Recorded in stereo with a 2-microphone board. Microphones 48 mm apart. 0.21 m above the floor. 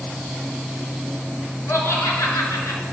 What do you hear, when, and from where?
1.7 s laughter: 65° left (ahead or behind), 3.5 m